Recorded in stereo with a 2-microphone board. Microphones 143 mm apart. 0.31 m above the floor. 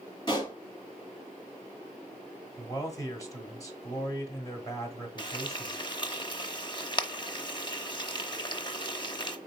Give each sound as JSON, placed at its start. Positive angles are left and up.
{"t": 0.3, "sound": "a pop", "side_deg": 30, "distance_m": 3.0}
{"t": 2.6, "sound": "a man speaking", "side_deg": 25, "distance_m": 1.3}
{"t": 5.2, "sound": "frying", "side_deg": 35, "distance_m": 0.6}